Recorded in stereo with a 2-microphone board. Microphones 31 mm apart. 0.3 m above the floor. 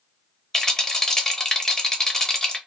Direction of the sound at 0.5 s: 15° left (ahead or behind).